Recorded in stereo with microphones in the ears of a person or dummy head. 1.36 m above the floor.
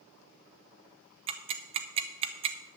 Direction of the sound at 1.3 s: 30° right (ahead or behind).